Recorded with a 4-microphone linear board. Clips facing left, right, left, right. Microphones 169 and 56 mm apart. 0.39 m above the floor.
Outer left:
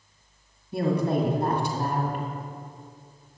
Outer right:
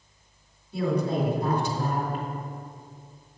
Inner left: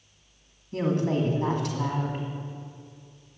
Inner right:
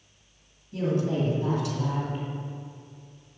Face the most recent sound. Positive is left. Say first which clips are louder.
# outer left 2 dB, inner left 1 dB
turn(degrees=65)  # may be behind; listen again after turning